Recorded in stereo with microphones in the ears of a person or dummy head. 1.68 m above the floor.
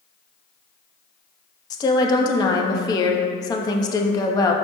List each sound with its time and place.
1.7 s a woman speaking: 25° left (ahead or behind), 0.9 m